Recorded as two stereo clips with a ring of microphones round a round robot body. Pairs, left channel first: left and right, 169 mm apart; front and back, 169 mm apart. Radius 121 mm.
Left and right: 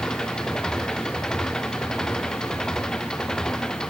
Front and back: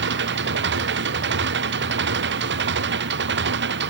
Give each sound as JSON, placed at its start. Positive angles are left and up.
{"t": 0.0, "sound": "an engine running", "azimuth_deg": 180}